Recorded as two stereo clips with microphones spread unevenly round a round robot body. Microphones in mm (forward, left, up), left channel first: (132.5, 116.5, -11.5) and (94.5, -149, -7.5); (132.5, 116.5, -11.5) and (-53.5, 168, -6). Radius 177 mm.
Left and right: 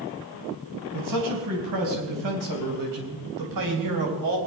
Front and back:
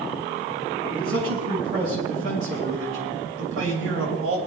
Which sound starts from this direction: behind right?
A man speaking, at 0.9 s.